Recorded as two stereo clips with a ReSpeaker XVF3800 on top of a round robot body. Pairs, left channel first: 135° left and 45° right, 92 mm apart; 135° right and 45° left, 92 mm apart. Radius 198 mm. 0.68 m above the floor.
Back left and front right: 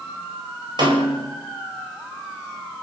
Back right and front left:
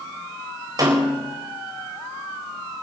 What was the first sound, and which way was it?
A snare drum, 5° right.